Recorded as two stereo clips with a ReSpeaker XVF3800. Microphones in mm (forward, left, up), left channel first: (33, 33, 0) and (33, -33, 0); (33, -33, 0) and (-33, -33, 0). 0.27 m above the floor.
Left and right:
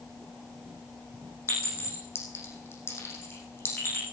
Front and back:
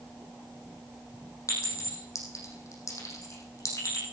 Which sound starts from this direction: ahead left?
A clink, at 1.5 s.